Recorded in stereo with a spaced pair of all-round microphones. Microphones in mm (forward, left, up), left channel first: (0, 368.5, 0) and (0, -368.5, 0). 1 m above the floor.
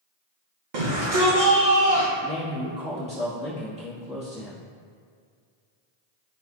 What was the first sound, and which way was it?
A shout, 70° right (ahead or behind).